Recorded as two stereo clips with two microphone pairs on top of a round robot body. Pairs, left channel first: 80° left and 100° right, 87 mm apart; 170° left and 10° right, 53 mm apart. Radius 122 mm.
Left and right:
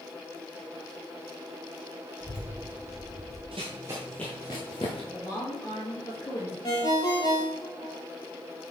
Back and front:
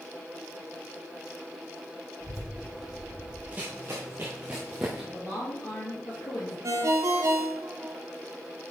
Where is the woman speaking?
135° left, 2.5 m.